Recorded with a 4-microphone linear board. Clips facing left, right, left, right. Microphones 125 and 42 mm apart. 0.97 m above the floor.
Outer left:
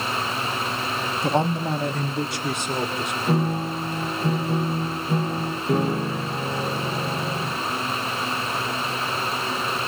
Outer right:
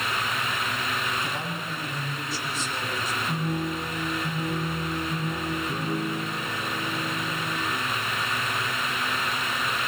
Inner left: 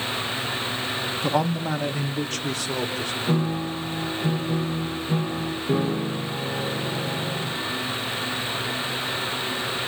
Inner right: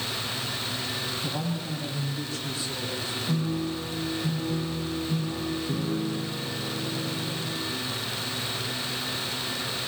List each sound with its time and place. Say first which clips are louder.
1.2 s a man speaking: outer left 10 dB, inner left 8 dB; 65° left (ahead or behind), 1.9 m
3.3 s a piano: outer left 7 dB, inner left 3 dB; 55° left (ahead or behind), 6.5 m